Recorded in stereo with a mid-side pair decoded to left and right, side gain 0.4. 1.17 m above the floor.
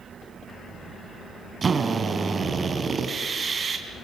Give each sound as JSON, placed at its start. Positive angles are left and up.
{"t": 1.6, "sound": "a drill", "azimuth_deg": -40, "distance_m": 3.5}